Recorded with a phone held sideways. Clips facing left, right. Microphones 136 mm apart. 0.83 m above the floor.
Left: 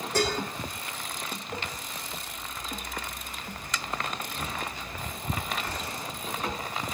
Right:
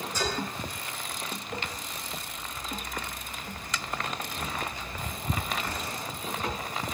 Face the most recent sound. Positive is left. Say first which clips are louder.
# left 5 dB
turn(degrees=70)  # may be behind; listen again after turning